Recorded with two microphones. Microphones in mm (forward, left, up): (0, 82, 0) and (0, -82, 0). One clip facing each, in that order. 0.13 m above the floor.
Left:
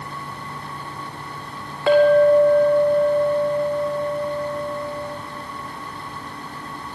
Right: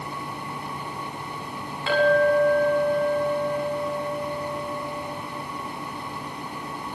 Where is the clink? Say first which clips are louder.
Left 6 dB; 55° left (ahead or behind), 5.5 m.